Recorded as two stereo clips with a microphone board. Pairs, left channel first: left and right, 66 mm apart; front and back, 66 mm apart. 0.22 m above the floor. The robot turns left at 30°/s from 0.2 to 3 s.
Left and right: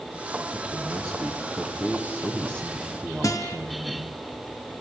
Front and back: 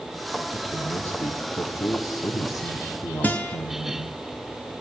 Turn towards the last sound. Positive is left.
turn(degrees=65)